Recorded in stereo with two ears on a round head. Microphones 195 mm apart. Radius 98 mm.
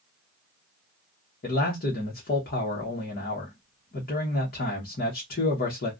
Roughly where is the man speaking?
Left.